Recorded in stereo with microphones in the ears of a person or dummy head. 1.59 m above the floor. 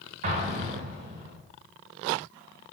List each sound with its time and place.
0.2 s an explosion: 45° right (ahead or behind), 1.4 m